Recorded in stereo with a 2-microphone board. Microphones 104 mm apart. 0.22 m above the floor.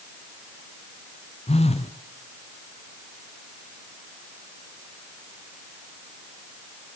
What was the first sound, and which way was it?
A phone buzzing, 90° left.